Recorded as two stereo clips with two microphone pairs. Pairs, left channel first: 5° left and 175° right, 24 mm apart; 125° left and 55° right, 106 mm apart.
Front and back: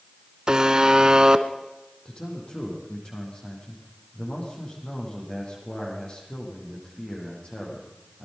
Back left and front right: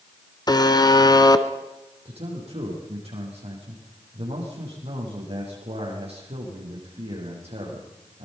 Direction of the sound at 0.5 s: 145° left.